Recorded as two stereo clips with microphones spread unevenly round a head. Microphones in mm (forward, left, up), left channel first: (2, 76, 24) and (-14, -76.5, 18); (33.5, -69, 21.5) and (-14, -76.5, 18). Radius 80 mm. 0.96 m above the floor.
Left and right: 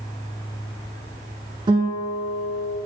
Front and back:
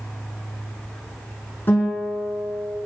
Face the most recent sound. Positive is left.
turn(degrees=-35)